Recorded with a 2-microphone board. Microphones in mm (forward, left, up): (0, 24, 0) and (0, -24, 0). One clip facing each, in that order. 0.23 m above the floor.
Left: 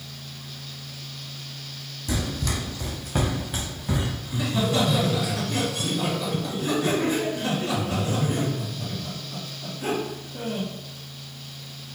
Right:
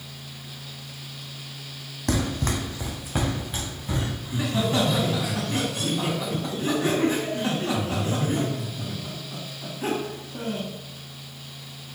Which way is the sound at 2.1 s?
70° right (ahead or behind).